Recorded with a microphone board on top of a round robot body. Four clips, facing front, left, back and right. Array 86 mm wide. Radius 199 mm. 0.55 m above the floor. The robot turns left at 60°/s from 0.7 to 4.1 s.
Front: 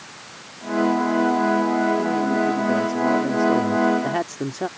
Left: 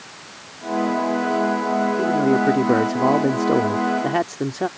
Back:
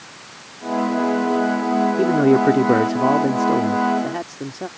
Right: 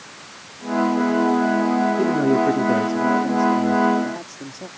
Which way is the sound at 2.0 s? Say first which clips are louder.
Even, back 6 dB; 165° right.